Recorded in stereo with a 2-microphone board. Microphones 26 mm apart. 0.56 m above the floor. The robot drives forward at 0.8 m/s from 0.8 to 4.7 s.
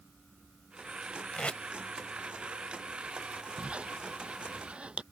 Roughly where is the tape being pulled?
Left.